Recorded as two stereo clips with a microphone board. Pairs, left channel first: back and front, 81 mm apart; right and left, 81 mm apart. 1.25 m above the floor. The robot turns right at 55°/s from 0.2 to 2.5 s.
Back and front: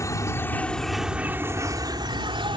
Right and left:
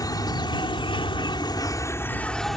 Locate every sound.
0.0 s an insect: 130° right; by 2.6 s 5° right